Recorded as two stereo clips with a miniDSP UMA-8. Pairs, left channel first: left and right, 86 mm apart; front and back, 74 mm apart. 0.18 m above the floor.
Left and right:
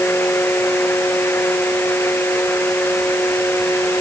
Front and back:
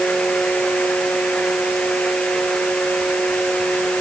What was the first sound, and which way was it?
Only background noise.